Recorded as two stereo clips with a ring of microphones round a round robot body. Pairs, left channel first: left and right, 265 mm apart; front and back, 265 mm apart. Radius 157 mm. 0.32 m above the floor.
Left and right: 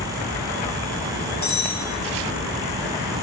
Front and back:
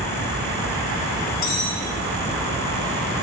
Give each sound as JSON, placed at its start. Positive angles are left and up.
{"t": 1.4, "sound": "cutlery clinking", "azimuth_deg": 35, "distance_m": 5.5}